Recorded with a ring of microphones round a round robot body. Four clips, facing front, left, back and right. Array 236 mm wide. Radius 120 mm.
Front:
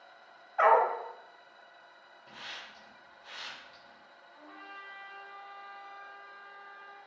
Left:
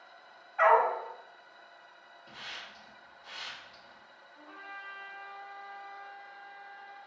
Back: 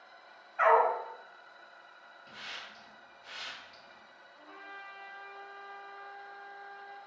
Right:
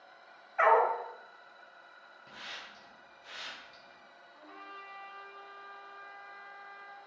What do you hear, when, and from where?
0.6 s a dog barking: 25° right, 0.6 m
2.3 s a hiss: 105° right, 2 m
4.3 s a trumpet: 50° right, 1.8 m